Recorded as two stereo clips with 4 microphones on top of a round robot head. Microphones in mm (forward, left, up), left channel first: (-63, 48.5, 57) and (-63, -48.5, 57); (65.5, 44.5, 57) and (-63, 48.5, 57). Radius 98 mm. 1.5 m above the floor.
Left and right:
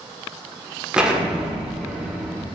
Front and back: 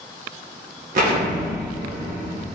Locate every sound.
0.9 s an explosion: 170° right, 0.6 m